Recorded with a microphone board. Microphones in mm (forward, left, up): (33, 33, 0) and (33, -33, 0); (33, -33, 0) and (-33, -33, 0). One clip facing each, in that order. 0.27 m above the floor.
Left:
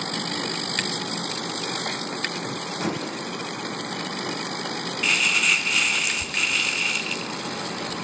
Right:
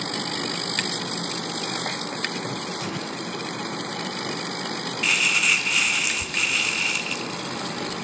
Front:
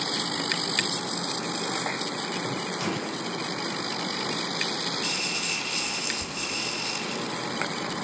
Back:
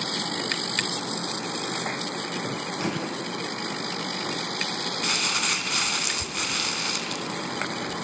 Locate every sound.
2.8 s a microwave: 125° left, 9 m
5.0 s crumpling: straight behind, 2.0 m